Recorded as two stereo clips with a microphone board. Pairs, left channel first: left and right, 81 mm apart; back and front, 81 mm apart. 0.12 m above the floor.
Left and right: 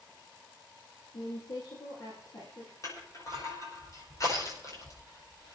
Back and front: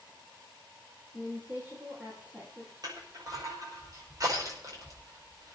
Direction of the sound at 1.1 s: 65° left.